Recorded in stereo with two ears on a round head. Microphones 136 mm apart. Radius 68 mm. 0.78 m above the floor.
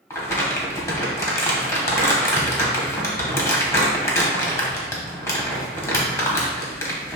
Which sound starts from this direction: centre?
Crumpling, at 0.1 s.